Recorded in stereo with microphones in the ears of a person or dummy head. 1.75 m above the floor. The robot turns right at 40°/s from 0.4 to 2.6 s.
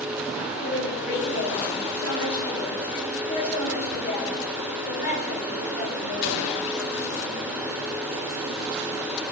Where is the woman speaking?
55° left, 7.5 m; by 6.9 s 135° left, 7.5 m.